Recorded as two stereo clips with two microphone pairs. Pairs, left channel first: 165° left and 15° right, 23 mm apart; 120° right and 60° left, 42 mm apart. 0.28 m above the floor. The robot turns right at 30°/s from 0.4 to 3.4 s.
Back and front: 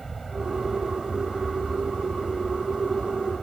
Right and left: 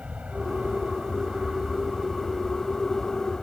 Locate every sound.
0.0 s an aircraft: 90° left; by 3.4 s straight behind